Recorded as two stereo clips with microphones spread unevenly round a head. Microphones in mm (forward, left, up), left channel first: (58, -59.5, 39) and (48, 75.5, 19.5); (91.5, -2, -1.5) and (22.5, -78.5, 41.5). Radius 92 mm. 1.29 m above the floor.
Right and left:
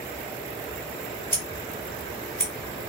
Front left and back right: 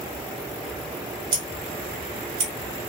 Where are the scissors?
155° right, 2.5 m.